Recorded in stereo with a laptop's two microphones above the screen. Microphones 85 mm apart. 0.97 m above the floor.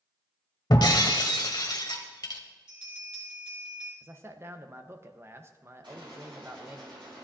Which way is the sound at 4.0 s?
30° right (ahead or behind).